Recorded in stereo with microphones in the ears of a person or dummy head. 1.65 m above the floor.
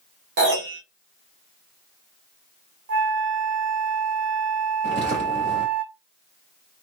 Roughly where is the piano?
Right.